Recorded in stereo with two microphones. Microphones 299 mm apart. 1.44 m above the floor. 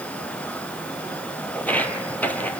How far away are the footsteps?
About 1.5 m.